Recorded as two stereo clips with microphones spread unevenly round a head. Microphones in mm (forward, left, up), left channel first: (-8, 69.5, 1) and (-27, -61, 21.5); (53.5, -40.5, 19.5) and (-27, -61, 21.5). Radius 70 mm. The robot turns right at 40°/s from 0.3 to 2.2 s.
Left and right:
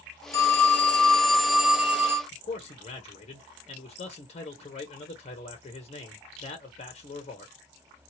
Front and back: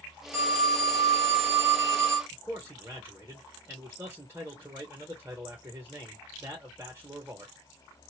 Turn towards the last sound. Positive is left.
turn(degrees=125)